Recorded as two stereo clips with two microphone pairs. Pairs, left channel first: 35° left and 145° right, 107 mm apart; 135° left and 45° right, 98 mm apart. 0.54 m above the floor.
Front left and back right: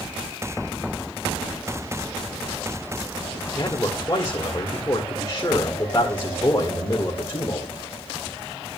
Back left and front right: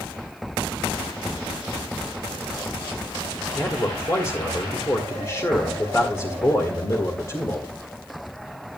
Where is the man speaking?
85° left, 1.8 m.